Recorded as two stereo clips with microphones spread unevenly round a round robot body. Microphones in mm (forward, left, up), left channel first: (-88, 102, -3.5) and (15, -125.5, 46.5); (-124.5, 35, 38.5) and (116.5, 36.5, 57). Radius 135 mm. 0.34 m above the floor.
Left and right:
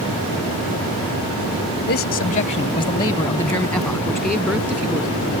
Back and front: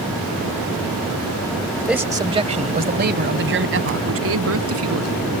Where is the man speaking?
90° left; by 5.3 s 20° left.